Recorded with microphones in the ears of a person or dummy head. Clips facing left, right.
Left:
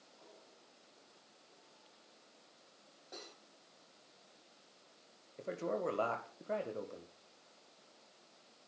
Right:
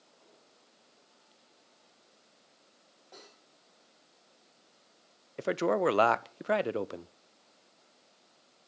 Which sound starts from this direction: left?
Cutlery clinking, at 3.1 s.